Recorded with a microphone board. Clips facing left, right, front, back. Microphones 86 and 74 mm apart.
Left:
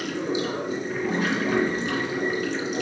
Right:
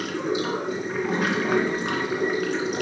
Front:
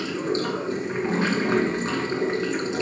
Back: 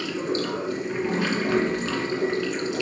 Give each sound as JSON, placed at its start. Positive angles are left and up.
{"t": 0.0, "sound": "running water", "azimuth_deg": -60, "distance_m": 2.5}